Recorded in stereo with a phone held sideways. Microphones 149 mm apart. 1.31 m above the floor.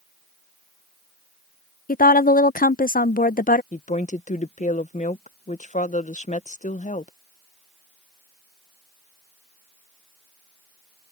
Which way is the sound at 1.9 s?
70° left (ahead or behind).